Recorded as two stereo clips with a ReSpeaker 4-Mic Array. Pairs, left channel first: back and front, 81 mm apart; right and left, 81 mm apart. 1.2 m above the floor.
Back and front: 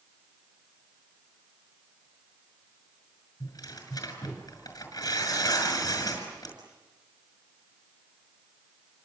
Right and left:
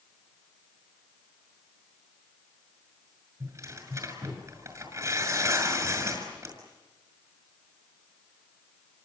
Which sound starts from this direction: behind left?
Tearing paper, at 3.4 s.